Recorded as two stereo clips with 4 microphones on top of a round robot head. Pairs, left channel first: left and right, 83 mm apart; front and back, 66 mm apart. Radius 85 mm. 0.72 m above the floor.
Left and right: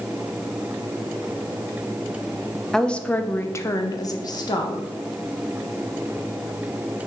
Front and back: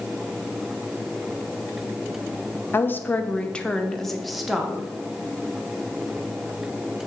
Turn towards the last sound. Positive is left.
turn(degrees=100)